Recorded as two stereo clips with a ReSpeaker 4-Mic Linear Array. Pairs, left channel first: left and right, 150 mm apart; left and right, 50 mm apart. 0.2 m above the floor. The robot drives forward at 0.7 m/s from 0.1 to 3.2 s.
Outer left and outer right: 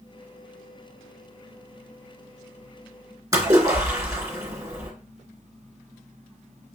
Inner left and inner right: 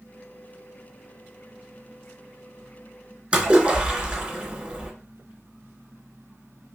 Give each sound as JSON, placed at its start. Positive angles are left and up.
{"t": 3.3, "sound": "a splash", "side_deg": -20, "distance_m": 2.5}